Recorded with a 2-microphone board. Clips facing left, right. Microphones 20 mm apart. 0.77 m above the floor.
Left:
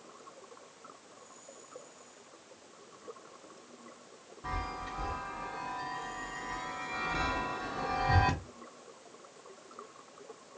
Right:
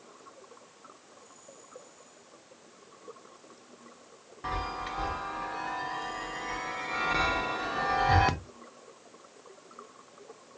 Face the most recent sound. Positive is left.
turn(degrees=-65)  # may be behind; listen again after turning